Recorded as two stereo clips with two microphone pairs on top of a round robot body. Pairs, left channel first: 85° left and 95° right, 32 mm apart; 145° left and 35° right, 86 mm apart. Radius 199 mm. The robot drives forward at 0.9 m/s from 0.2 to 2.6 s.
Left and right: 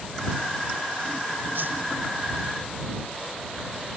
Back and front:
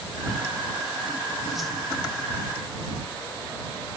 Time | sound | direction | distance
1.6 | a whoosh | 115° right | 0.7 m